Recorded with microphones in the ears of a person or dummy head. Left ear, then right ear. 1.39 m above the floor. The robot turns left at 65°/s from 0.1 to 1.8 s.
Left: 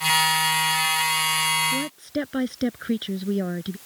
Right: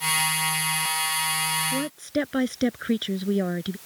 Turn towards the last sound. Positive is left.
turn(degrees=-15)  # may be behind; listen again after turning